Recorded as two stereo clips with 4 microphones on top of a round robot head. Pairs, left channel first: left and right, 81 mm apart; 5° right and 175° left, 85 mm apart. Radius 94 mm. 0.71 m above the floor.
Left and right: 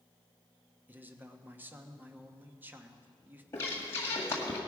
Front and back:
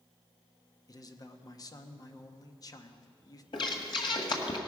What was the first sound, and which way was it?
A man speaking, 30° right.